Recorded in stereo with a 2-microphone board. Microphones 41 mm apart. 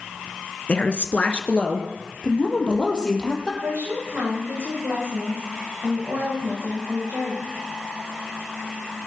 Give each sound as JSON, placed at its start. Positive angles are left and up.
{"t": 0.7, "sound": "a woman speaking", "side_deg": 30, "distance_m": 1.1}
{"t": 3.6, "sound": "a woman speaking", "side_deg": -80, "distance_m": 8.5}